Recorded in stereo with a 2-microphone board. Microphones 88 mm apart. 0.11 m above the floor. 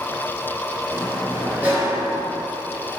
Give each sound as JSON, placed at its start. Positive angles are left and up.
{"t": 0.9, "sound": "a sliding door", "side_deg": -20, "distance_m": 1.9}